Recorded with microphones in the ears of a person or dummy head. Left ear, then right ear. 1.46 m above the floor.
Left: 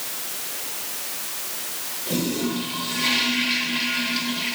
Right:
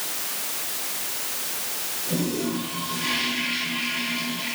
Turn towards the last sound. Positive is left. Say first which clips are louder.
# left 2 dB
turn(degrees=40)  # may be behind; listen again after turning